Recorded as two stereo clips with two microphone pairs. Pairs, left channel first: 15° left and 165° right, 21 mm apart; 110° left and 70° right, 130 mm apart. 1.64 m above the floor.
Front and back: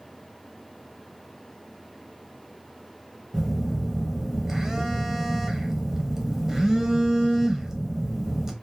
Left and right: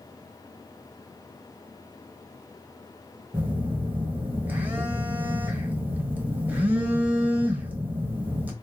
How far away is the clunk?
I don't hear a clunk.